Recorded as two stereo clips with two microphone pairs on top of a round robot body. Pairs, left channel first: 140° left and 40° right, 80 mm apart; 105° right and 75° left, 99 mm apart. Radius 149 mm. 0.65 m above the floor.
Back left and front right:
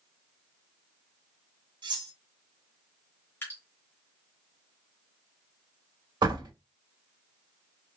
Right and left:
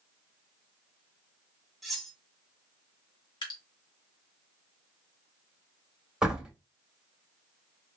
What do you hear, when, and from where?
1.8 s cutlery clinking: 15° right, 1.0 m
3.4 s dripping: 150° right, 1.0 m
6.2 s a door slam: 10° right, 1.6 m